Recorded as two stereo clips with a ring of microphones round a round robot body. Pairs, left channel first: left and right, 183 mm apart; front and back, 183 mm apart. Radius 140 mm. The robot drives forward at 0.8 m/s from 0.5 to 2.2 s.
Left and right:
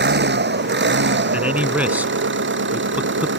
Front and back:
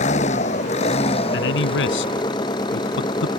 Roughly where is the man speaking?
Ahead.